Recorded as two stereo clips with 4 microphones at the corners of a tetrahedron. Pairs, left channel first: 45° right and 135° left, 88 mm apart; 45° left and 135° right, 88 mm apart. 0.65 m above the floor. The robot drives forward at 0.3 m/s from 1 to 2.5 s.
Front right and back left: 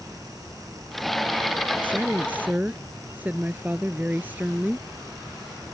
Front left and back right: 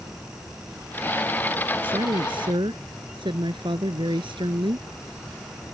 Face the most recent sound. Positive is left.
turn(degrees=-155)